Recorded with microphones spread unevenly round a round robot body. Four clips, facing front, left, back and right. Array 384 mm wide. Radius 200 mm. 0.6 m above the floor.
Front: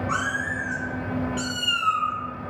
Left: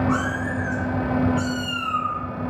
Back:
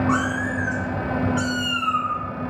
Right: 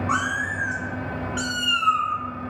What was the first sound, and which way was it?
A cat meowing, 120° right.